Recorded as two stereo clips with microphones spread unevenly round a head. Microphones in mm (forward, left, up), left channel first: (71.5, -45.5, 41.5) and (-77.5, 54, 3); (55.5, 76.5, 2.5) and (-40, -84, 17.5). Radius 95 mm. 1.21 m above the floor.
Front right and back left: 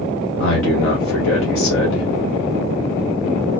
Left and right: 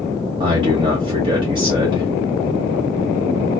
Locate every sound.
0.4 s a man speaking: 55° right, 1.2 m